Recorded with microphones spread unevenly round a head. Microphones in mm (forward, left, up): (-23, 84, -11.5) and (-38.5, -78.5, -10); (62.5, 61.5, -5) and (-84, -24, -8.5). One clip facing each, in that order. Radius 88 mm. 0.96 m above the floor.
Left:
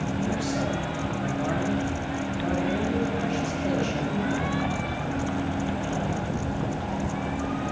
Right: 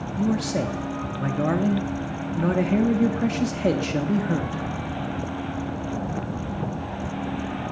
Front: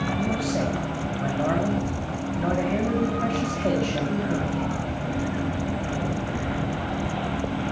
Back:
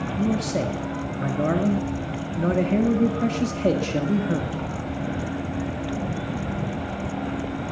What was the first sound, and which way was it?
A man speaking, 105° right.